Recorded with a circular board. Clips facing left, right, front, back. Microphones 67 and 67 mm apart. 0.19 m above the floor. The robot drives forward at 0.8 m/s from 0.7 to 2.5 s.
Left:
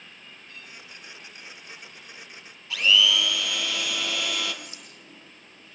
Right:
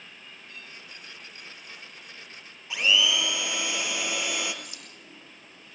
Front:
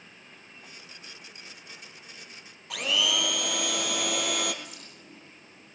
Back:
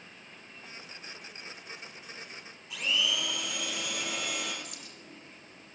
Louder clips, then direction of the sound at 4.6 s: Left 1 dB, front 1 dB; 155° left.